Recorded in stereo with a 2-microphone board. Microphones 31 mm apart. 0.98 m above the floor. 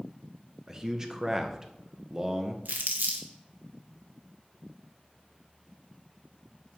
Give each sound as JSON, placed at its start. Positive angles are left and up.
{"t": 0.7, "sound": "a man speaking", "side_deg": -20, "distance_m": 0.7}
{"t": 2.6, "sound": "crumpling", "side_deg": -70, "distance_m": 1.1}